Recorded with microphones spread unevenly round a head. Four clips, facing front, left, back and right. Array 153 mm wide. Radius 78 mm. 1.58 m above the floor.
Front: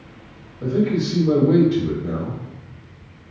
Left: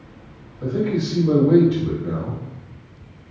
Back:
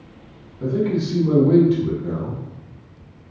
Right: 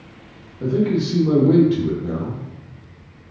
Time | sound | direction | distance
0.6 | a man speaking | 115° right | 1.5 m